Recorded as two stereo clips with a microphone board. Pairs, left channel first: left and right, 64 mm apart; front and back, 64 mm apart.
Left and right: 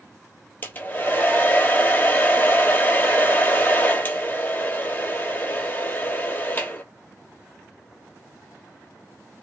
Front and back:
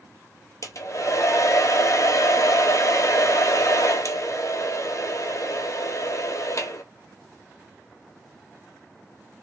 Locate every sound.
0.6 s a hair dryer: 30° left, 0.8 m